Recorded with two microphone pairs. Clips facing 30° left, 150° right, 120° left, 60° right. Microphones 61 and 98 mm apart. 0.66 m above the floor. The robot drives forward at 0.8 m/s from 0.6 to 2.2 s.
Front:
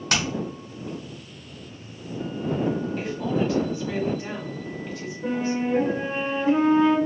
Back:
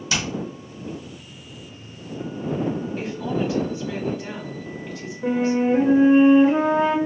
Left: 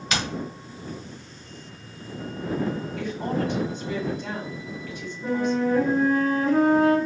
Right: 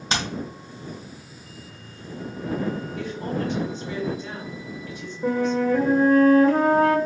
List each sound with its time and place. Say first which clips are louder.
0.1 s hammering: front 1 dB, right 1 dB; 5° right, 1.0 m
3.0 s a woman speaking: even, left 1 dB; 125° left, 1.4 m
5.2 s a flute: back 5 dB, right 2 dB; 90° right, 1.0 m